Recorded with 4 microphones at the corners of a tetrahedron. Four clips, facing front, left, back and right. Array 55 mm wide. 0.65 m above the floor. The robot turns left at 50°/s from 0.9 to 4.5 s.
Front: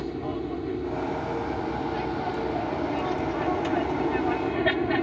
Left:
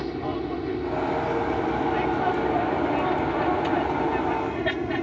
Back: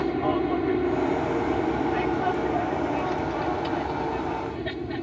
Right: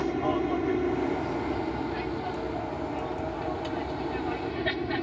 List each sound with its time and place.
0.0 s an aircraft: 160° right; by 5.0 s 20° left